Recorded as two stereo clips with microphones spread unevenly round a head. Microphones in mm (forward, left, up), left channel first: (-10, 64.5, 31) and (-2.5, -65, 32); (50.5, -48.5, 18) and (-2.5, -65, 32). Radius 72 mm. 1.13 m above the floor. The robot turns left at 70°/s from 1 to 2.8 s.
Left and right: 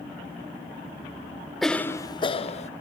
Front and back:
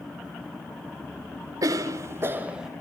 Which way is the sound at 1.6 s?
Straight behind.